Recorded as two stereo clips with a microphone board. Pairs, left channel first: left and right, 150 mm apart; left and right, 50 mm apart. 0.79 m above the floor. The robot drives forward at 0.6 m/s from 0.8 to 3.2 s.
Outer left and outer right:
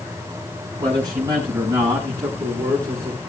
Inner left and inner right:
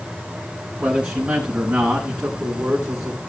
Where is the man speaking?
25° right (ahead or behind), 5.5 m; by 3.2 s 20° right (ahead or behind), 7 m.